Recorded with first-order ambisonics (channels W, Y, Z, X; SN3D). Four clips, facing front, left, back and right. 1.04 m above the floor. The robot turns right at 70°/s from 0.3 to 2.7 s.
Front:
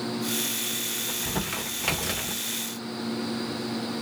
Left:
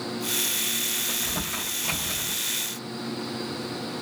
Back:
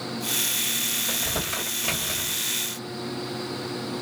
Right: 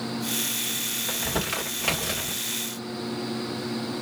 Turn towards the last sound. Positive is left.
turn(degrees=5)